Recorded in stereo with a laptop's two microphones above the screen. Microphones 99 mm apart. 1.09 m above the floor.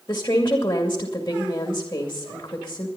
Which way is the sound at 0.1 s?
25° left (ahead or behind).